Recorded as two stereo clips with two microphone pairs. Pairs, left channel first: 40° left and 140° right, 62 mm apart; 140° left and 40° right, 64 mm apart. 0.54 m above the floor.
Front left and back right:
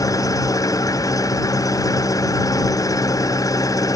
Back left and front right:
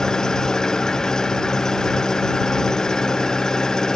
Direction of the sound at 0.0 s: 60° left.